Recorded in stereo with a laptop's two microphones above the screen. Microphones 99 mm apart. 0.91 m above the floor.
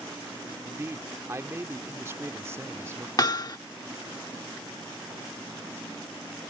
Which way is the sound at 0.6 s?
30° right (ahead or behind).